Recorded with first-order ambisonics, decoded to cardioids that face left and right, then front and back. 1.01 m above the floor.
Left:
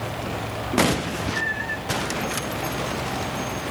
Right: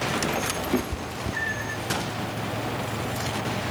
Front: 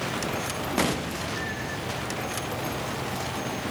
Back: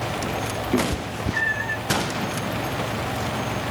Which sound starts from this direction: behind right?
A cat meowing, at 0.7 s.